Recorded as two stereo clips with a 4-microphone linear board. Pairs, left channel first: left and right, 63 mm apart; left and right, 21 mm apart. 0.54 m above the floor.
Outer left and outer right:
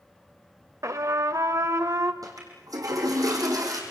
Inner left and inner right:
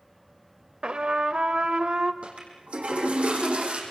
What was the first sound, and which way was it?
A trumpet, 55° right (ahead or behind).